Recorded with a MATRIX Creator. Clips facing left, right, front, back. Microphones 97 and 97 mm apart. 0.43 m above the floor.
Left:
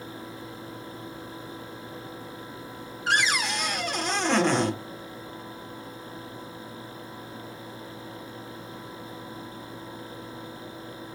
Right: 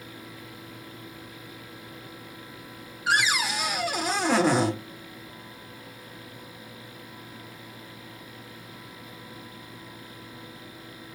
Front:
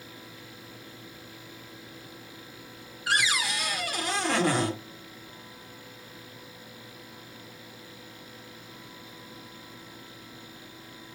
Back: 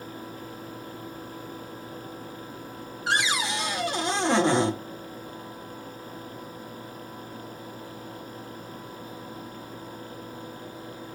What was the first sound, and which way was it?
A cupboard door, 165° right.